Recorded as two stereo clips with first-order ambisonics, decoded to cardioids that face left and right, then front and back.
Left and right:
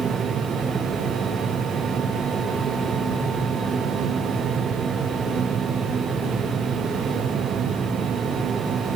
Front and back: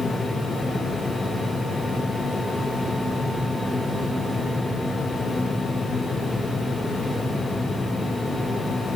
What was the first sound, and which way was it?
Only background noise.